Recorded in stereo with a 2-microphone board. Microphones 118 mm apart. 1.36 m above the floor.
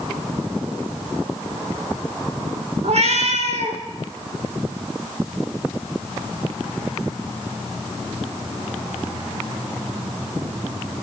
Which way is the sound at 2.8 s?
65° right (ahead or behind).